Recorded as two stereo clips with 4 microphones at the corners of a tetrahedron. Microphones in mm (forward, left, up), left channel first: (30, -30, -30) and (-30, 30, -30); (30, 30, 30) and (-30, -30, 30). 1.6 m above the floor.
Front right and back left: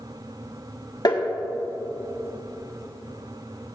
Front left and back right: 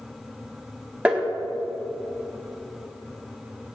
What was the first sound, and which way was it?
Tapping, 65° right.